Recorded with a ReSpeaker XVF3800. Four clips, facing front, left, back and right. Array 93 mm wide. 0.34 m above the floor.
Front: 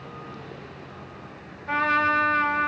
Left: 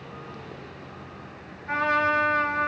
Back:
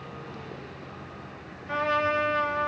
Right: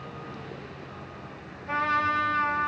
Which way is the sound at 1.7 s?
10° left.